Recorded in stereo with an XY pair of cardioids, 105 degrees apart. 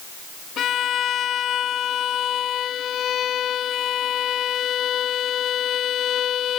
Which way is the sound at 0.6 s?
60° left.